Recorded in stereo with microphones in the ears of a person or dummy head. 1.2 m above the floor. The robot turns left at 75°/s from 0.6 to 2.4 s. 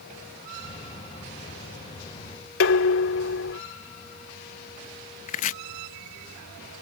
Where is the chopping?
35° left (ahead or behind).